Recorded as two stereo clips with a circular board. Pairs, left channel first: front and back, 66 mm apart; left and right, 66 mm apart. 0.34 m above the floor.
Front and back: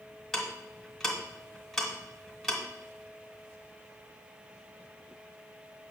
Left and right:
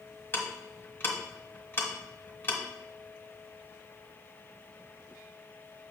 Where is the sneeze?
No sneeze in this recording.